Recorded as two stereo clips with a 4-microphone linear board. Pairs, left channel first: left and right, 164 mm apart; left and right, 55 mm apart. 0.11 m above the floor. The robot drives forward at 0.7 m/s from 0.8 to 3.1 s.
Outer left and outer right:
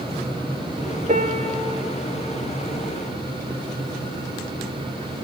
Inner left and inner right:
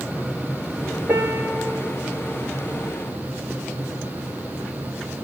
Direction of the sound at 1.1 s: 50° right (ahead or behind).